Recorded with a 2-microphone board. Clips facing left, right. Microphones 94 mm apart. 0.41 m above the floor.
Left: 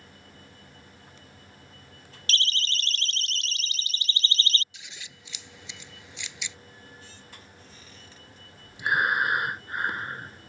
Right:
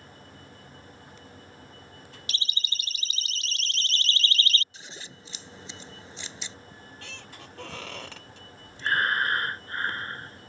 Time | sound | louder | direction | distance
2.3 | a siren | left 7 dB | 15° right (ahead or behind) | ?
4.7 | scissors | right 3 dB | 35° right (ahead or behind) | ?
6.7 | a squeak | right 3 dB | 70° right (ahead or behind) | ?
8.8 | breathing | left 1 dB | 15° left (ahead or behind) | ?